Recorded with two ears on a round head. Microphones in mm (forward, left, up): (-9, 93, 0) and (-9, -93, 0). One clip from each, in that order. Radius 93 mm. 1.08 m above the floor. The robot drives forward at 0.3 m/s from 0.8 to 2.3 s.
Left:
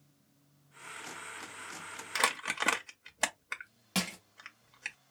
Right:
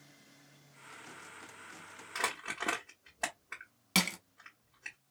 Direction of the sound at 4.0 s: 25° right (ahead or behind).